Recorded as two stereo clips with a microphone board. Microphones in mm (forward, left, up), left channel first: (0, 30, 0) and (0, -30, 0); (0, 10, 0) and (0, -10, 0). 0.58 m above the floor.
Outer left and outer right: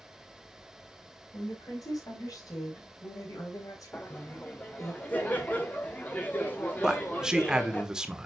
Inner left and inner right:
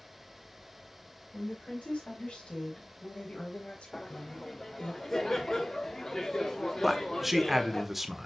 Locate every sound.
1.3 s a woman speaking: 80° left, 5.5 m; by 4.9 s 65° left (ahead or behind), 3 m
3.9 s laughter: 30° left (ahead or behind), 1.1 m
6.8 s a man speaking: 10° right (ahead or behind), 1.5 m